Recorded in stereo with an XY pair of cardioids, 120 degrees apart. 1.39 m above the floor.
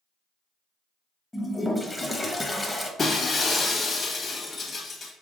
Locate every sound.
1.3 s a toilet flushing: 15° left, 0.9 m
3.0 s breaking glass: 35° left, 1.5 m